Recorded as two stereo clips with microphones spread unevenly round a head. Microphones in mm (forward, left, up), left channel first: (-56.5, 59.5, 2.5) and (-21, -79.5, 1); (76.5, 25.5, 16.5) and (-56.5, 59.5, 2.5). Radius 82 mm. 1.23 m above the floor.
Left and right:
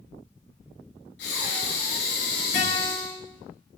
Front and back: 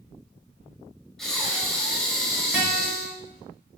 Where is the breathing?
70° left, 5.5 m.